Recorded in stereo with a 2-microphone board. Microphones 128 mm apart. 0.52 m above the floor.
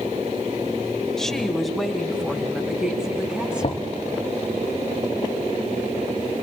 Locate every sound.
1.2 s a woman speaking: centre (ahead or behind), 2.5 m; by 3.9 s 10° right (ahead or behind), 4.5 m
3.6 s knocking: 60° left (ahead or behind), 2.5 m